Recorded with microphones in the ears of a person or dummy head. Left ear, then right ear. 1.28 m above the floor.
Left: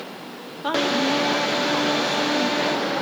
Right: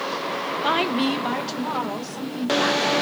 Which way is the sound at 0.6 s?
5° right (ahead or behind).